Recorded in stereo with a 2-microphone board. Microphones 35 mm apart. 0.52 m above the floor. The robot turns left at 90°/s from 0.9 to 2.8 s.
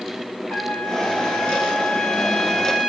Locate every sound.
0.5 s a trumpet: 135° left, 1.7 m; by 2.9 s 35° right, 1.7 m